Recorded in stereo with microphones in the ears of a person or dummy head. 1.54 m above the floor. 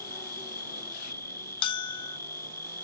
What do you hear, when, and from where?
0.0 s an insect: 20° left (ahead or behind)
1.6 s a bell: 35° left (ahead or behind)